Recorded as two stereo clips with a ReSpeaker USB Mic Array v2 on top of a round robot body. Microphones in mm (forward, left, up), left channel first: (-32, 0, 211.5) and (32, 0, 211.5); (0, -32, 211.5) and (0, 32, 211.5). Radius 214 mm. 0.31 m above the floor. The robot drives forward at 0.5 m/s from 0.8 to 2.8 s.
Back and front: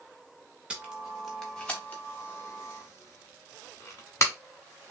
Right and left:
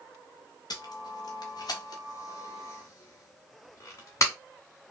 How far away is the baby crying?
I don't hear a baby crying.